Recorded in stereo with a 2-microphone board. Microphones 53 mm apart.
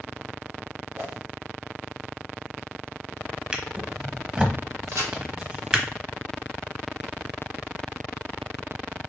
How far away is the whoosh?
About 2.5 m.